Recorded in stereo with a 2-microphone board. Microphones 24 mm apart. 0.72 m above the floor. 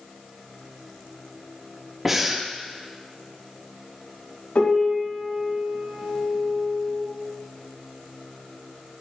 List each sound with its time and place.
2.0 s breathing: 15° right (ahead or behind), 0.9 m
4.5 s a piano: 70° left (ahead or behind), 2 m